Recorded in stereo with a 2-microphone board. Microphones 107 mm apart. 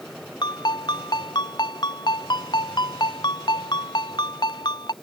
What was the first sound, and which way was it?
A ringtone, 40° left (ahead or behind).